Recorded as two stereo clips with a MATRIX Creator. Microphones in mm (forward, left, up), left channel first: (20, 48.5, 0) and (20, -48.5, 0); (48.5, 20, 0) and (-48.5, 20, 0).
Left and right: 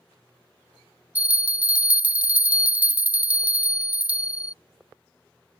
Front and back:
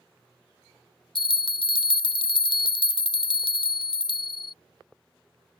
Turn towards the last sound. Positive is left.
turn(degrees=-15)